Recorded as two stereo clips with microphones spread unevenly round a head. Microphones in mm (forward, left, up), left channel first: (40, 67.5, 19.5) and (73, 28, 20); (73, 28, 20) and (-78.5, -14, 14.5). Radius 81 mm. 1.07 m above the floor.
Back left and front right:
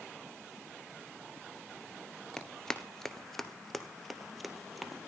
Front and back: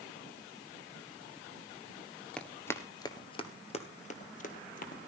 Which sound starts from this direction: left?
Running footsteps, at 2.4 s.